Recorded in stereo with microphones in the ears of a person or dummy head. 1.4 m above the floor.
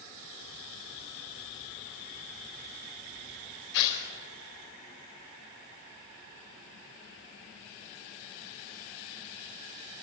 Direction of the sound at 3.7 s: 65° left (ahead or behind).